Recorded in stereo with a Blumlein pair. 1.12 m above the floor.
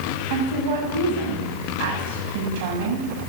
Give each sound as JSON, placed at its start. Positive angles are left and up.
{"t": 0.3, "sound": "a woman speaking", "azimuth_deg": -50, "distance_m": 7.5}